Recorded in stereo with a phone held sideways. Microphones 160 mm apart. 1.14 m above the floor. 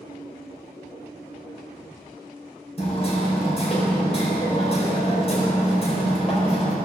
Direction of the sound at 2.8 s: 40° left (ahead or behind).